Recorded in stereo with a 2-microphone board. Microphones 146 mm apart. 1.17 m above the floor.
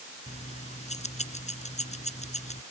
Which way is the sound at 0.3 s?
50° left (ahead or behind).